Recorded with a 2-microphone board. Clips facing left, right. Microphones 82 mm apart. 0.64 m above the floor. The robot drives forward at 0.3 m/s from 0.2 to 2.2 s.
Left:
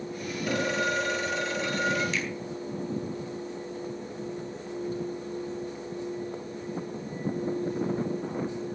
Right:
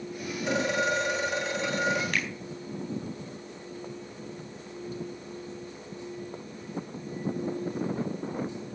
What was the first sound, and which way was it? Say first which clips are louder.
A phone ringing: right 1 dB; 25° right (ahead or behind).